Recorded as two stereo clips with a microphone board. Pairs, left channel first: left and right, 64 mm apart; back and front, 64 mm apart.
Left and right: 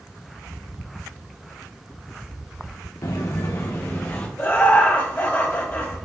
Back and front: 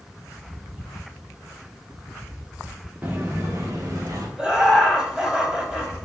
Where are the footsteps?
60° left, 1.3 m; by 4.3 s 30° left, 1.8 m.